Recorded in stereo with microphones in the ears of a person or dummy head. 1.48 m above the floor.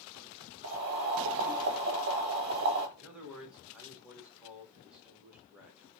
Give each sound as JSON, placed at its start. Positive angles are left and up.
{"t": 0.6, "sound": "boiling", "side_deg": -55, "distance_m": 1.0}
{"t": 3.0, "sound": "a man speaking", "side_deg": -5, "distance_m": 1.4}